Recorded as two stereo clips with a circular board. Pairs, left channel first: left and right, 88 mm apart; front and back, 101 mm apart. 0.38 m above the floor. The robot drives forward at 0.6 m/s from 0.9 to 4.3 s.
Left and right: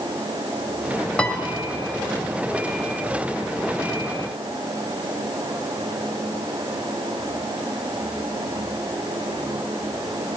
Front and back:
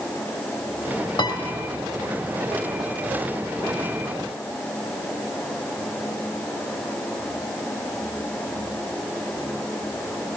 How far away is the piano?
About 2.5 m.